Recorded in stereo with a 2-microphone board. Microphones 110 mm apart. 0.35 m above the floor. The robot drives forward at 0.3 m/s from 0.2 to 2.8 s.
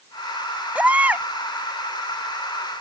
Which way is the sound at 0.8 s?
15° right (ahead or behind).